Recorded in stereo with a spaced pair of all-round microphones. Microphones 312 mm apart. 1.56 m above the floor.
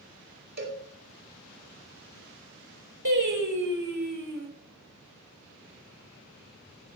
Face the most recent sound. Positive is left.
turn(degrees=-70)  # may be behind; listen again after turning